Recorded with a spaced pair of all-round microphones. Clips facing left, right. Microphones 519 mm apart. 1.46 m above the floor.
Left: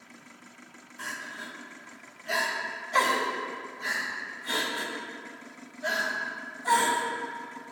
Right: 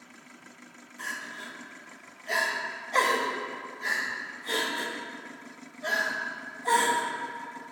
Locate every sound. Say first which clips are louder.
1.0 s crying: left 1 dB; 35° left (ahead or behind), 0.8 m